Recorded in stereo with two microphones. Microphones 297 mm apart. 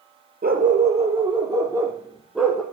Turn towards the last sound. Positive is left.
turn(degrees=0)  # may be behind; listen again after turning